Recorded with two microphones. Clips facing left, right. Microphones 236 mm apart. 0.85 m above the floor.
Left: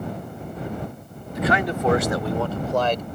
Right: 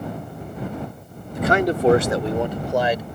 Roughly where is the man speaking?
Right.